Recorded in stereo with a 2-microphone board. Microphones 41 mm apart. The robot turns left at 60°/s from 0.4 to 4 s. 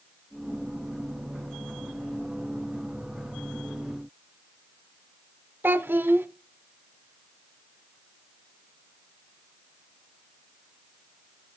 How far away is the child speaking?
About 0.8 m.